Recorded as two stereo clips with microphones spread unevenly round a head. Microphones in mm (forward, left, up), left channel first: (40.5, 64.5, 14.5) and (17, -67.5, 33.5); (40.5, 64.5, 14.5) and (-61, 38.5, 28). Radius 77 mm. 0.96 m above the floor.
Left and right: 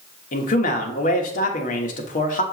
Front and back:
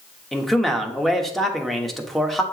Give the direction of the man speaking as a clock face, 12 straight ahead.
9 o'clock.